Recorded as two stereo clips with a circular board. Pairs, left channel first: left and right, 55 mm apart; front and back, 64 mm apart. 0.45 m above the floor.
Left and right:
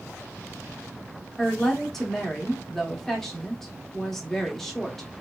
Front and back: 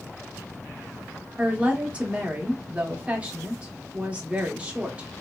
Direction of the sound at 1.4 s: 160° left.